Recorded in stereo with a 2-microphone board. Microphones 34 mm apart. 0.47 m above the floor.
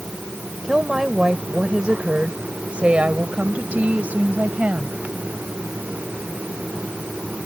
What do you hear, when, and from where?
0.6 s a woman speaking: 15° right (ahead or behind); by 5.0 s 55° right (ahead or behind)